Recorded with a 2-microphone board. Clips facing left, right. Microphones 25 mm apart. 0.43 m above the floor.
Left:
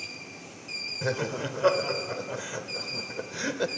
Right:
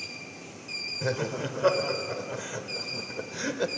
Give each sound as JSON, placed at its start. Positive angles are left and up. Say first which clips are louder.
{"t": 1.0, "sound": "laughter", "louder": "left 1 dB", "side_deg": 10, "distance_m": 1.2}